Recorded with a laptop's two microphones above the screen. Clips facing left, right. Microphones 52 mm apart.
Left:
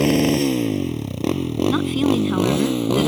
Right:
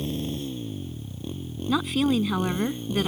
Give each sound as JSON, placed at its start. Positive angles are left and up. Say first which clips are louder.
{"t": 0.0, "sound": "a motorcycle", "louder": "left 14 dB", "side_deg": 65}
{"t": 1.7, "sound": "a woman speaking", "louder": "left 2 dB", "side_deg": 0}